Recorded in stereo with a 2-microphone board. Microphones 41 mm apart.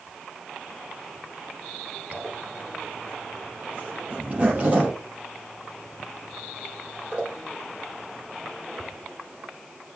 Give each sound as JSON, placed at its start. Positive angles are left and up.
{"t": 2.1, "sound": "a zipper", "side_deg": -30, "distance_m": 5.5}